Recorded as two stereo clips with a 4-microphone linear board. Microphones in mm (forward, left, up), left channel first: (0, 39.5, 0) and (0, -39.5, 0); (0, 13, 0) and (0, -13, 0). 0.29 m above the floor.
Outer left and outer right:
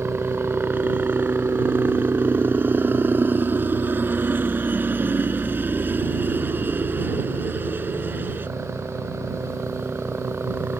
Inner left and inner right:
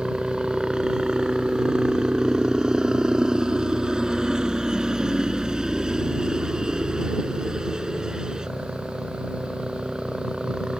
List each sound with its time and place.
0.0 s a helicopter: 25° right (ahead or behind)